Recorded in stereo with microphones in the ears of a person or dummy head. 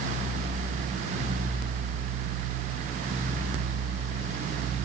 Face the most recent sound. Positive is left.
No sound to turn to.